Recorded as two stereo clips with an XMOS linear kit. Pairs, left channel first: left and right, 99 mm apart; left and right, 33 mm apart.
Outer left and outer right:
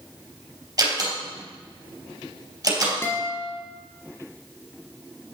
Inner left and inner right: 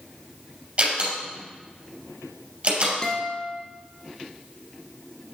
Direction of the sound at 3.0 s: 25° left (ahead or behind).